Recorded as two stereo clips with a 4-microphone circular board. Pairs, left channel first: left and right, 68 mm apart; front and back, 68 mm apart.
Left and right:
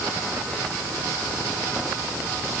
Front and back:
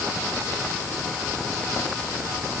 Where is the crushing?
No crushing in this recording.